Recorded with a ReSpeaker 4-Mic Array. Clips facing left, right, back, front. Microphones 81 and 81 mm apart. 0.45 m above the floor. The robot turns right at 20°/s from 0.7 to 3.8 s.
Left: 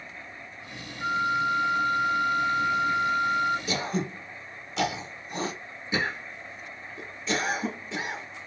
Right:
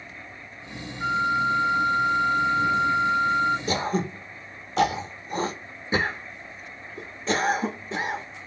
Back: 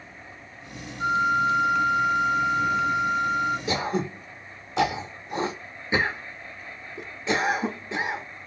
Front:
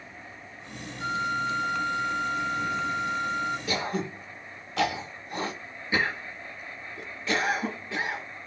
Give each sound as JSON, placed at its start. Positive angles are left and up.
{"t": 1.0, "sound": "a flute", "azimuth_deg": 15, "distance_m": 1.8}
{"t": 3.7, "sound": "throat clearing", "azimuth_deg": -120, "distance_m": 0.6}